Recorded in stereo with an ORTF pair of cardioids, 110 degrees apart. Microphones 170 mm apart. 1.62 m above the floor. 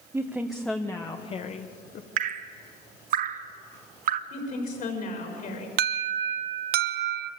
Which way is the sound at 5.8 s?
70° right.